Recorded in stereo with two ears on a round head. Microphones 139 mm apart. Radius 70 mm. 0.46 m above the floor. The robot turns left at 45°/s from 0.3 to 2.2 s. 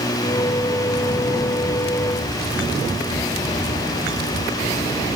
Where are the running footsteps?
I don't hear running footsteps.